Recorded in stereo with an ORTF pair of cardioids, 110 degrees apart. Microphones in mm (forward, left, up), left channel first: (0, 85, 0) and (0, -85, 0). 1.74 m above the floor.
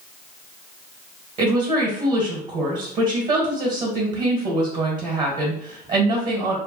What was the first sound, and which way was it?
A woman speaking, 50° right.